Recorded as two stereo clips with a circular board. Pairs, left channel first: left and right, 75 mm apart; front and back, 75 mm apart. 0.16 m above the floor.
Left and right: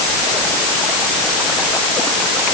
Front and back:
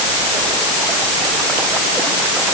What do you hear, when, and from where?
Only background noise.